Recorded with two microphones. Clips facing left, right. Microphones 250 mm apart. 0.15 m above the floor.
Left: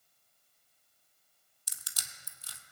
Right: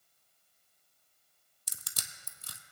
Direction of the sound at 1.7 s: 55° right (ahead or behind).